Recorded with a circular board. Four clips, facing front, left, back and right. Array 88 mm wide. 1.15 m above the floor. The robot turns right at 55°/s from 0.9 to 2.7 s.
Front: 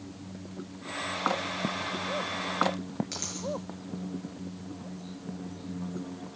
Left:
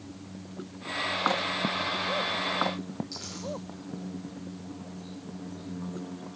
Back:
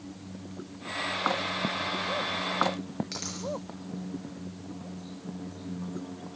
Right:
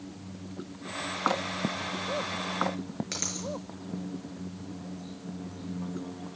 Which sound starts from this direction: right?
A dropped coin, at 3.1 s.